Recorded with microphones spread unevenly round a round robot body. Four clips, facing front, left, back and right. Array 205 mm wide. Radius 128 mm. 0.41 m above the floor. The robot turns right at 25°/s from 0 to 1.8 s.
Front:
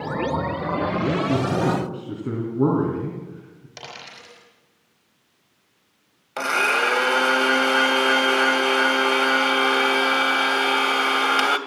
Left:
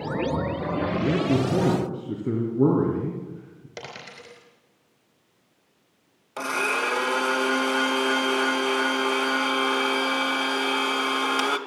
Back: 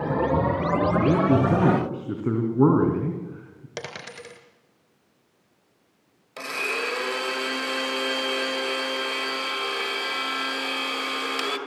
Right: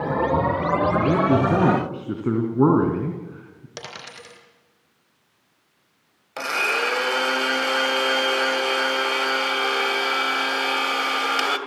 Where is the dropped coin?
Straight behind, 3.5 m.